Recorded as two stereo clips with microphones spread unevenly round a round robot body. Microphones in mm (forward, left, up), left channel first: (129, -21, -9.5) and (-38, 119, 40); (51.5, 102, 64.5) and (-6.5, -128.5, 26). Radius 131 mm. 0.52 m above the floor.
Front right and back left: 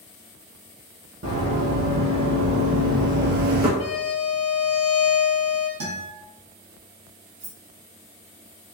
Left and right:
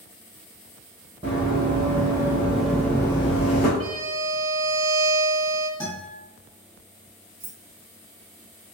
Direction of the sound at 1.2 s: 175° right.